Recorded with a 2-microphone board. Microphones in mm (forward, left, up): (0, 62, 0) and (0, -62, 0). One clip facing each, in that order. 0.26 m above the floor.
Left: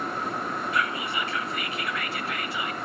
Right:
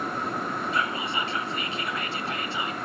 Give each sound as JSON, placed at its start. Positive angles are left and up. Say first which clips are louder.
{"t": 0.7, "sound": "whispering", "louder": "even", "side_deg": -30, "distance_m": 1.0}